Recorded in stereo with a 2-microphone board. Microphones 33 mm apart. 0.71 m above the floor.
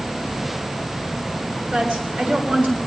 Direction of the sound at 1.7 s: 50° right (ahead or behind).